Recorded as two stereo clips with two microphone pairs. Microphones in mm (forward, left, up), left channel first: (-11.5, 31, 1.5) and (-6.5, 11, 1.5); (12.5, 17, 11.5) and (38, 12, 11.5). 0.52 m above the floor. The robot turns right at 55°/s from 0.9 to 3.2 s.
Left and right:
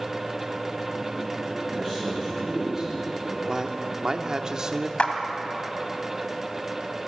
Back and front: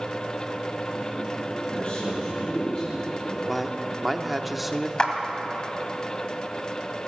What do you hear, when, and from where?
1.7 s a man speaking: 155° left, 6 m; by 3.4 s 125° right, 6 m
3.5 s a man speaking: 95° right, 1.1 m
5.0 s a clap: 115° left, 2 m